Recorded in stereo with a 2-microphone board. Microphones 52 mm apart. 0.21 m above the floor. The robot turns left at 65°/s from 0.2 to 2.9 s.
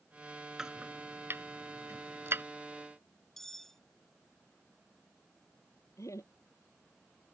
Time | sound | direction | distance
0.6 | chopping | 10° right (ahead or behind) | ?
3.4 | cutlery clinking | 5° left (ahead or behind) | ?
6.0 | laughter | 75° left (ahead or behind) | ?